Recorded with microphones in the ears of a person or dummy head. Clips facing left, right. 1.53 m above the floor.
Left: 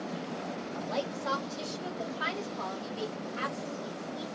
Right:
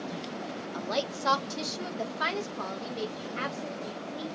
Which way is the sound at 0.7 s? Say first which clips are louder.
Right 3 dB; 65° right (ahead or behind).